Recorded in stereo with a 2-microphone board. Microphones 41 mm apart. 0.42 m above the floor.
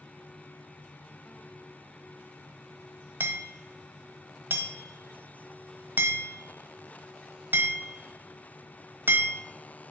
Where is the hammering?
70° right (ahead or behind), 1.1 m.